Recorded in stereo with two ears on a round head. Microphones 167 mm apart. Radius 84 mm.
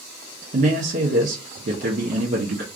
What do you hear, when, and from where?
0.5 s a man speaking: 45° right (ahead or behind), 0.9 m